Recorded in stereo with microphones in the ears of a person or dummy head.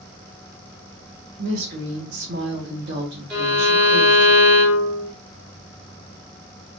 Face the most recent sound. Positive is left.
turn(degrees=-5)  # may be behind; listen again after turning